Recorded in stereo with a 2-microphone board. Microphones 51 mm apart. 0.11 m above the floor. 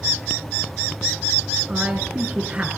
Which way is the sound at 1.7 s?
30° right (ahead or behind).